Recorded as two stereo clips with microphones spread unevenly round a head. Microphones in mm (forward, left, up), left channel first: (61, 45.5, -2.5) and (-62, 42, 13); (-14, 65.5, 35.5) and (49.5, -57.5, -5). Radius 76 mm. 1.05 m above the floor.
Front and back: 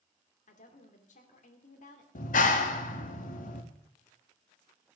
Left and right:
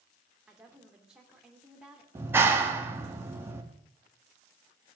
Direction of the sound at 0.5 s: 25° left.